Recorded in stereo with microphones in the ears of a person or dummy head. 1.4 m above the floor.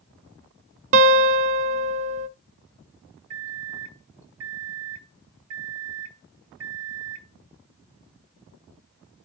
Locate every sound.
0.9 s a guitar: 35° right (ahead or behind), 1.0 m
3.3 s a microwave: 70° right (ahead or behind), 0.9 m